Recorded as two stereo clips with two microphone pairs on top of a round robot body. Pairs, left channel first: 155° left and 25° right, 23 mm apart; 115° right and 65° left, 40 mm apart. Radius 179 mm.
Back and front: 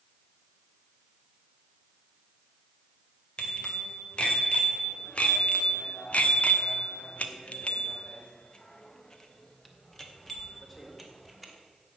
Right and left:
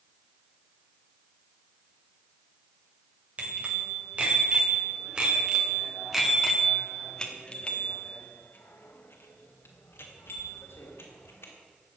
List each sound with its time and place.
3.4 s a bicycle bell: 115° left, 3 m; by 11.5 s 115° right, 2.5 m